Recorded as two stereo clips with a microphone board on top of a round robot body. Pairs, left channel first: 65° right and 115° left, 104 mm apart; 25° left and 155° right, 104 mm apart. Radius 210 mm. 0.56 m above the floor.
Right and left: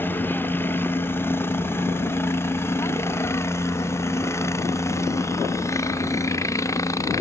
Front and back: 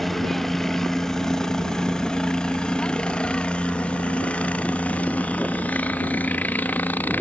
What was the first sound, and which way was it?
A helicopter, 60° right.